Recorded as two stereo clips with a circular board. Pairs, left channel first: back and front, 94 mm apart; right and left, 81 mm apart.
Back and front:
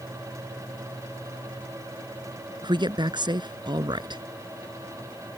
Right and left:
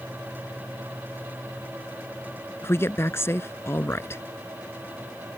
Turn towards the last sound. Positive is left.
turn(degrees=-30)